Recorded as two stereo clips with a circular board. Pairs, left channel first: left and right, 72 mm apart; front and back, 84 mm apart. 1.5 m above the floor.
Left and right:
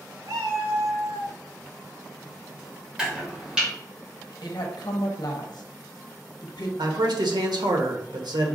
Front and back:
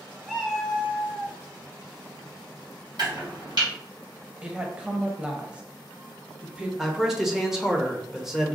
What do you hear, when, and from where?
0.2 s a cat meowing: 90° right, 2.0 m; by 1.4 s 120° right, 2.5 m
3.0 s chopping: 165° right, 2.5 m
4.4 s a woman speaking: 105° left, 0.7 m
6.8 s a man speaking: 95° right, 1.0 m